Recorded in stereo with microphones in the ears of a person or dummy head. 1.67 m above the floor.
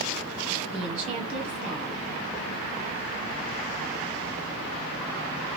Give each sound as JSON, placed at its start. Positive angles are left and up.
{"t": 0.7, "sound": "a woman speaking", "side_deg": -35, "distance_m": 1.1}